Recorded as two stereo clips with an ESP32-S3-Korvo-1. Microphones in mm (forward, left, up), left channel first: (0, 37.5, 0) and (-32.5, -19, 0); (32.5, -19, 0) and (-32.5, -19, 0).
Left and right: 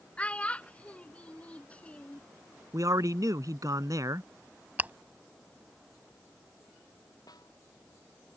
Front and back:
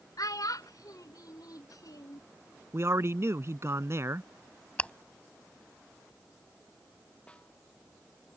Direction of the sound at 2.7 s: 140° right.